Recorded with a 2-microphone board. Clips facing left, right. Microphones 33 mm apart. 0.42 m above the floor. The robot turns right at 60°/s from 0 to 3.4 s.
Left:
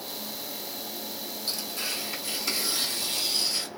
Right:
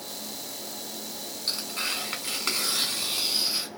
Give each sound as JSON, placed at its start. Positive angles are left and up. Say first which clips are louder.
{"t": 1.5, "sound": "tearing paper", "louder": "right 3 dB", "azimuth_deg": -135, "distance_m": 2.0}